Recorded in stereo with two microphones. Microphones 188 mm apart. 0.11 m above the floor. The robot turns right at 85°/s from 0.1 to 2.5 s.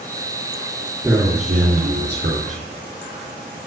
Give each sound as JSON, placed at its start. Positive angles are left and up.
{"t": 1.0, "sound": "a man speaking", "azimuth_deg": -170, "distance_m": 3.5}